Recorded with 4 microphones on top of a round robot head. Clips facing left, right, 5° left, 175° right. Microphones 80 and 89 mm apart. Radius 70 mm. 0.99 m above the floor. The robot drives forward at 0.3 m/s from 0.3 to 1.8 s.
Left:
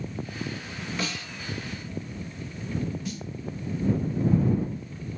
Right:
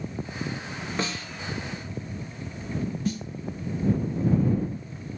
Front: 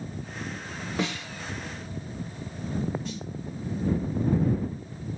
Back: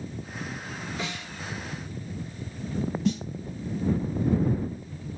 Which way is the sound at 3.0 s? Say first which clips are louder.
Right 6 dB, back 10 dB; 145° right.